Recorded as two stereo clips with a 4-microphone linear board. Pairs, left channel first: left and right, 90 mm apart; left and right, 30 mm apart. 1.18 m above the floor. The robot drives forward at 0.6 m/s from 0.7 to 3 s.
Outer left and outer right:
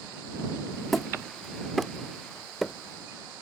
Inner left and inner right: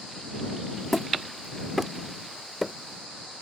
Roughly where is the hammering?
Centre.